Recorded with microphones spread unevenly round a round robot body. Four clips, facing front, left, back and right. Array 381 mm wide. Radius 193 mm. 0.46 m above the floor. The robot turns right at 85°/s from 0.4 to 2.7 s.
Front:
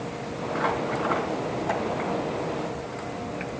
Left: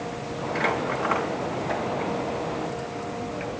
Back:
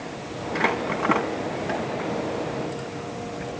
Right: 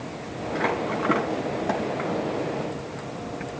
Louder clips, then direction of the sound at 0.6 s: Right 1 dB, back 2 dB; 165° left.